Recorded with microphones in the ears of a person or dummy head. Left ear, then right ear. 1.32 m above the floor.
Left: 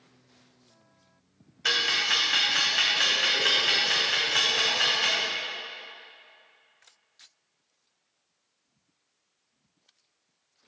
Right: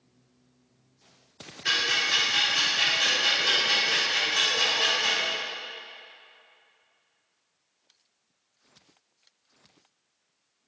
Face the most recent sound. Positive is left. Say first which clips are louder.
# even
turn(degrees=45)  # may be behind; listen again after turning